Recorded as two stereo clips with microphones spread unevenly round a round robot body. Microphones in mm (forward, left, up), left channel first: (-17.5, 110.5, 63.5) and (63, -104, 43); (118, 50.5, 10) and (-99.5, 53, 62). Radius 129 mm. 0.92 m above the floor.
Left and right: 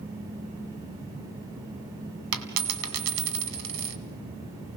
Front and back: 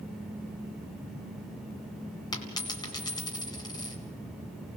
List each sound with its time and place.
2.3 s a dropped coin: 80° right, 1.7 m